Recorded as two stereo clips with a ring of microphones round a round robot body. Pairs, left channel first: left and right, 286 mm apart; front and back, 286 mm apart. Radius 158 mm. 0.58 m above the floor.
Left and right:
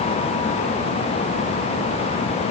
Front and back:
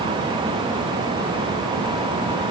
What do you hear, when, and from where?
Only background noise.